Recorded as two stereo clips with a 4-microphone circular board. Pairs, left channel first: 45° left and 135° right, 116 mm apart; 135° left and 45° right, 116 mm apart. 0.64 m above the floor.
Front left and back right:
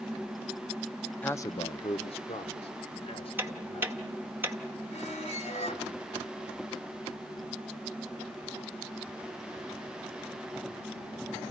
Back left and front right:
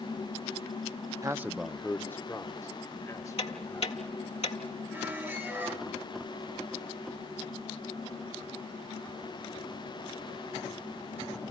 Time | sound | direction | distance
1.2 | a man speaking | 20° right | 0.6 m
3.4 | ticking | 155° left | 1.5 m
4.9 | a squeak | 30° left | 1.7 m